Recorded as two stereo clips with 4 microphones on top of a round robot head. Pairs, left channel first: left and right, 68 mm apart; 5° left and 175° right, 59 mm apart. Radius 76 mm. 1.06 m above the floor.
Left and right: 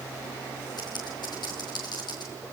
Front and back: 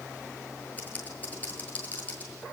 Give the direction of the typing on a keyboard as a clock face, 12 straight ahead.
10 o'clock.